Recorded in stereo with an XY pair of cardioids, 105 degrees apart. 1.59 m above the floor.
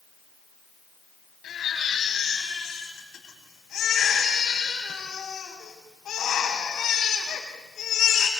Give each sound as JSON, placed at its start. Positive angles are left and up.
{"t": 1.4, "sound": "a baby crying", "azimuth_deg": 65, "distance_m": 7.5}